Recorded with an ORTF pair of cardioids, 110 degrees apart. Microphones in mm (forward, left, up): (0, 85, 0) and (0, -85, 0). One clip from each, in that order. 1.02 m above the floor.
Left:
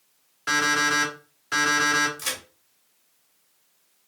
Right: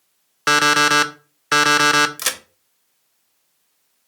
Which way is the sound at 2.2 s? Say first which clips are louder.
Right 6 dB; 60° right.